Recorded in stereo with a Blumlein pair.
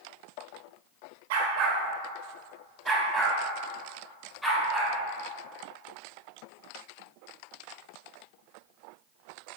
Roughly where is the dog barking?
Ahead right.